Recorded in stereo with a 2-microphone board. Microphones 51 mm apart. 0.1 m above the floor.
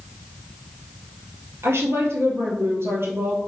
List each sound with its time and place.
1.6 s a woman speaking: 55° right (ahead or behind), 2.5 m; by 3.4 s 50° right (ahead or behind), 2.5 m